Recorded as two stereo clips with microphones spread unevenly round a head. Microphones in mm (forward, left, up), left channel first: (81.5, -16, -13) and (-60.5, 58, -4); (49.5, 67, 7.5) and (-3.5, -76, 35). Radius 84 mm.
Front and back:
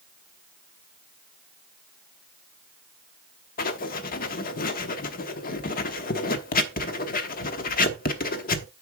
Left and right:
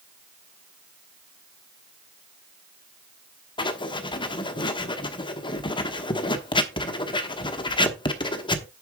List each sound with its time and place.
3.6 s writing: 10° left, 1.1 m